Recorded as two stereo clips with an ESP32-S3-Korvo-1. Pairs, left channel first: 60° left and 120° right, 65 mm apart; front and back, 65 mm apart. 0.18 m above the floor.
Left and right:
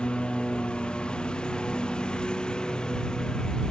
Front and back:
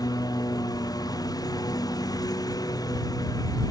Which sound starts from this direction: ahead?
A lawn mower, at 0.0 s.